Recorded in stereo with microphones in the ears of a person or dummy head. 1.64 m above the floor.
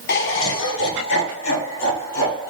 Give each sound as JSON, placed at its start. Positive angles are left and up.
{"t": 0.1, "sound": "laughter", "side_deg": 55, "distance_m": 0.9}